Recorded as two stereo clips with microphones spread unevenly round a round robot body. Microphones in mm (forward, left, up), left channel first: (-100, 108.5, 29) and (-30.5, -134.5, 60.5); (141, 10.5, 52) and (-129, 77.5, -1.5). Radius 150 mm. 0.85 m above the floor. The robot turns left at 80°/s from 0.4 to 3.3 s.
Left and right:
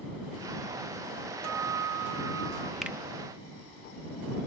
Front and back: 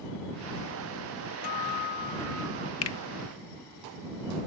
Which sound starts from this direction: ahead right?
A guitar, at 1.4 s.